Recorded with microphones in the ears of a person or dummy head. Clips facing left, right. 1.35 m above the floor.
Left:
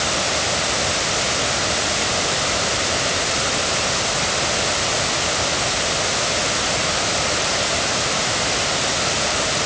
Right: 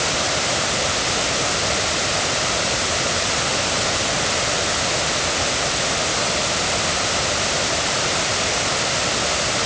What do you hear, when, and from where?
Only background noise.